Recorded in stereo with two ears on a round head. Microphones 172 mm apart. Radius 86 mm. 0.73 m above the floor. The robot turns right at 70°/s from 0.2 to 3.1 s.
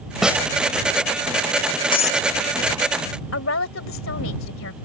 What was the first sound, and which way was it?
A snare drum, centre (ahead or behind).